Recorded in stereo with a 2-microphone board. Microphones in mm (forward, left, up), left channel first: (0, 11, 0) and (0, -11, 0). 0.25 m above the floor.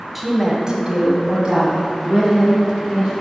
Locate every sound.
0.1 s a woman speaking: 5° right (ahead or behind), 1.5 m; by 3.1 s 45° right (ahead or behind), 4 m